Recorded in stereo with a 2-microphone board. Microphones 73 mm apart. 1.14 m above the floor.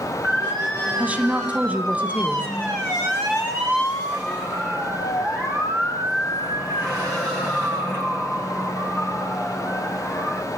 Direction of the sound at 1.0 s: 20° right (ahead or behind).